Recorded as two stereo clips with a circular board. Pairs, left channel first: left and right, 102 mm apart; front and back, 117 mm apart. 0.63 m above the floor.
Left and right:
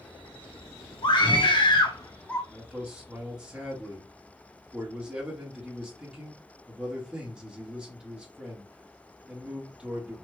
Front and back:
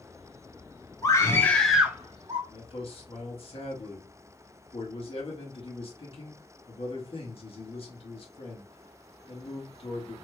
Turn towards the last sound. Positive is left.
turn(degrees=-10)